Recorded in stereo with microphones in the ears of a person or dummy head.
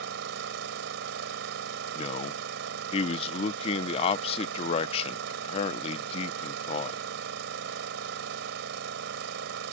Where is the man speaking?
35° left (ahead or behind).